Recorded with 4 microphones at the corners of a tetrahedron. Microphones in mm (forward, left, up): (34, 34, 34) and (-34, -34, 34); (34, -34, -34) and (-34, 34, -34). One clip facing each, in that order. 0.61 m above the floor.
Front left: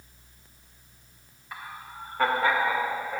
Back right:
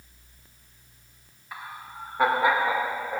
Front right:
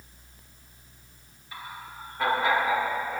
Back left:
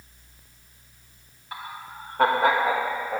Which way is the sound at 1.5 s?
140° left.